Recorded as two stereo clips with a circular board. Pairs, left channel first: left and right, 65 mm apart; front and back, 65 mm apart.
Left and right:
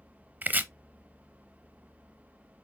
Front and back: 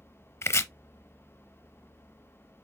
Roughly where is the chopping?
Ahead right.